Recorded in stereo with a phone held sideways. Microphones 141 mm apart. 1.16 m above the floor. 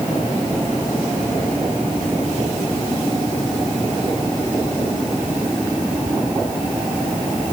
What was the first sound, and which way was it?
Only background noise.